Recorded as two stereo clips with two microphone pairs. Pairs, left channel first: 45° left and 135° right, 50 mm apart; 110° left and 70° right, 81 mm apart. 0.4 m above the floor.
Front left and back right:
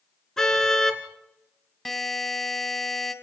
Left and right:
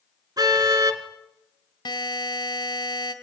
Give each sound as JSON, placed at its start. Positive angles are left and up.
{"t": 0.4, "sound": "a car horn", "azimuth_deg": -35, "distance_m": 2.0}
{"t": 1.9, "sound": "a buzzer", "azimuth_deg": 130, "distance_m": 2.0}